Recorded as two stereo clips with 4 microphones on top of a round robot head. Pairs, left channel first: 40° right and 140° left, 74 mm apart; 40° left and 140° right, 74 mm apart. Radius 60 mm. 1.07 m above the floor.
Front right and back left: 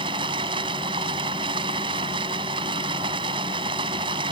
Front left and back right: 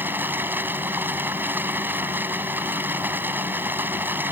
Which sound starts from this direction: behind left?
Running water, at 0.0 s.